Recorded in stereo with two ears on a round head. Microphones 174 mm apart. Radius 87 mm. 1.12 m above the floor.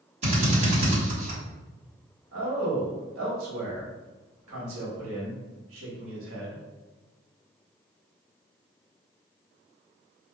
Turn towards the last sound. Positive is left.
turn(degrees=-80)